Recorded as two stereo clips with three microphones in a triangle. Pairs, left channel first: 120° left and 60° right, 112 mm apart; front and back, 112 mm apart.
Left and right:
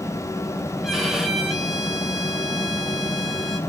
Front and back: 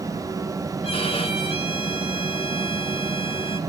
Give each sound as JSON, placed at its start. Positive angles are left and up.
{"t": 0.8, "sound": "a violin", "azimuth_deg": 25, "distance_m": 3.5}